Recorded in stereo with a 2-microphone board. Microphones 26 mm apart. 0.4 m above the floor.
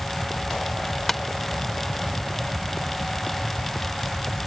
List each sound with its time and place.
1.1 s tapping: 10° left (ahead or behind)